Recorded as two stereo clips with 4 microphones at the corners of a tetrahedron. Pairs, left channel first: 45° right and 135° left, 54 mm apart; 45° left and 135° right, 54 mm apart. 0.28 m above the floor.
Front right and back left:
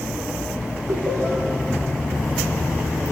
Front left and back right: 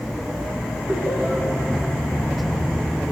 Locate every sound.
0.9 s laughter: 160° left, 5.5 m